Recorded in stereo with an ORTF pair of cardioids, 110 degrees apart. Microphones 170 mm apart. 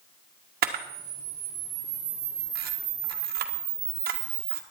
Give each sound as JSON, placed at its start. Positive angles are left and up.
{"t": 0.6, "sound": "a camera shutter", "azimuth_deg": -65, "distance_m": 1.8}